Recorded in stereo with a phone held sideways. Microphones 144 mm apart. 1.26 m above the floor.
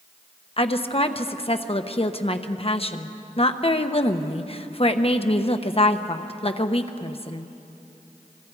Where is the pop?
I don't hear a pop.